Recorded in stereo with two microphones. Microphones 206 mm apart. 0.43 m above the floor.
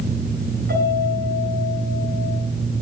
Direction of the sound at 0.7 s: 55° right (ahead or behind).